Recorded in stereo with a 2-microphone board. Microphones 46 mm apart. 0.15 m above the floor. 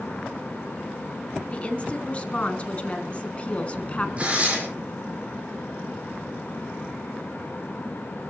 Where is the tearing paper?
30° right (ahead or behind), 5.5 m.